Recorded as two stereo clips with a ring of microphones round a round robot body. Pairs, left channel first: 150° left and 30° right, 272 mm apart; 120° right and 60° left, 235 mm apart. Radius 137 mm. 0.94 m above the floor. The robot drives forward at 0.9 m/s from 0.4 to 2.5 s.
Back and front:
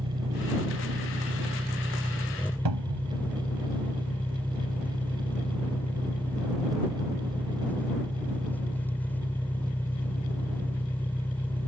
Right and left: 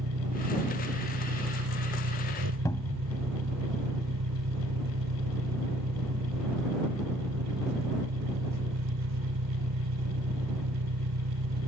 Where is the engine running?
40° left; by 11.7 s 65° left.